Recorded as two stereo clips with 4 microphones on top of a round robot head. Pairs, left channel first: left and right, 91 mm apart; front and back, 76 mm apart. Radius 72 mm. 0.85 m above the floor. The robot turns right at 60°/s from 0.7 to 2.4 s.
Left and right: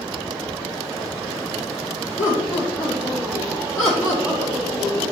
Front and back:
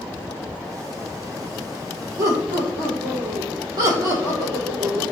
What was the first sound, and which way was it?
Laughter, 140° left.